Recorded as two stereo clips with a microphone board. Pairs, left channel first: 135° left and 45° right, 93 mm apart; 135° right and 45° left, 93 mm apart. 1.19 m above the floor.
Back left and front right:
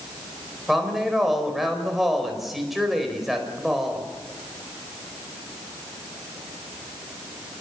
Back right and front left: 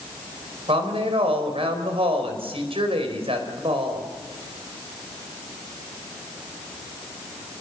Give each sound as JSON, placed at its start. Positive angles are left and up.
{"t": 0.7, "sound": "a woman speaking", "azimuth_deg": 45, "distance_m": 4.5}